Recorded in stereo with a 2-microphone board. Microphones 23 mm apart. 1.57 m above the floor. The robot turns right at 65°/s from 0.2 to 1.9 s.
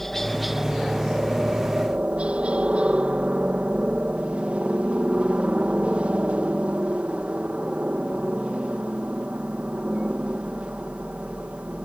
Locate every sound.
0.0 s a helicopter: 165° left; by 11.9 s 85° right